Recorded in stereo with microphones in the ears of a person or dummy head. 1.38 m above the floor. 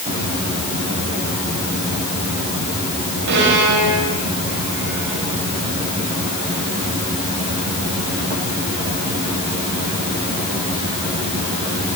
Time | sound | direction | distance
3.3 | a violin | 70° right (ahead or behind) | 8 m